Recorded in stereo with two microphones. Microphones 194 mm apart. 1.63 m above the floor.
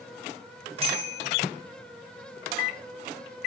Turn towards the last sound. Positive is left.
turn(degrees=-30)  # may be behind; listen again after turning